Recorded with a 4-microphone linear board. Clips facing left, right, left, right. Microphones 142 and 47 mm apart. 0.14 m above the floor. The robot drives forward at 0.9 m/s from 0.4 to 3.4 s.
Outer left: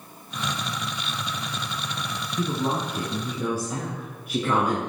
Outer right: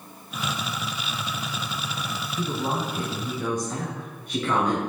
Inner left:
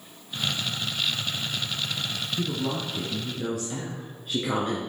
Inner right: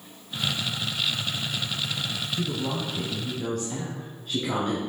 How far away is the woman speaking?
About 1.3 m.